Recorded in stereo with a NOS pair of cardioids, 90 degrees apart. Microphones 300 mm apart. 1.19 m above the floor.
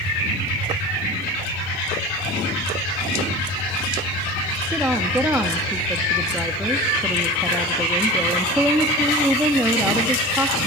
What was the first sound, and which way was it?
A woman speaking, 5° right.